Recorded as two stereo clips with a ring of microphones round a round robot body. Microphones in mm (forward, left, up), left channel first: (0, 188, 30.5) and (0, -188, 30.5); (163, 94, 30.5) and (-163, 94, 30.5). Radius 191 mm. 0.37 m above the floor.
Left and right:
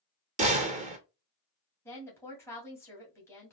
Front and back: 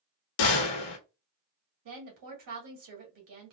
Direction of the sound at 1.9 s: 175° left.